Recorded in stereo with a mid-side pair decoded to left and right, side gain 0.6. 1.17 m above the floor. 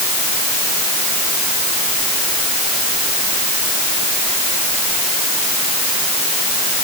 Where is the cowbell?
I don't hear a cowbell.